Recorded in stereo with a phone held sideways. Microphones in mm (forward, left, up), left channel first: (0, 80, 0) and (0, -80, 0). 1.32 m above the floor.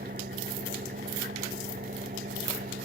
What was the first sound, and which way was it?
An engine running, 85° right.